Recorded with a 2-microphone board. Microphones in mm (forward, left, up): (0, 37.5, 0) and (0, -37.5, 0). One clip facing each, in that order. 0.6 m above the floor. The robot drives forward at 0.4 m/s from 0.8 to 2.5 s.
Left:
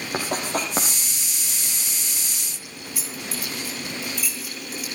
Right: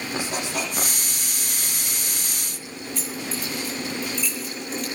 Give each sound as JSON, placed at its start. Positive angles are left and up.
{"t": 0.1, "sound": "writing", "side_deg": 45, "distance_m": 6.0}
{"t": 2.5, "sound": "keys jangling", "side_deg": 5, "distance_m": 8.0}